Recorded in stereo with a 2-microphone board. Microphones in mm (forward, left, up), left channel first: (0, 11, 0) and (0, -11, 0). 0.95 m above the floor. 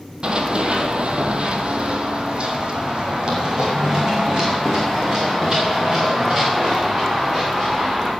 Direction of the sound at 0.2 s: 50° right (ahead or behind).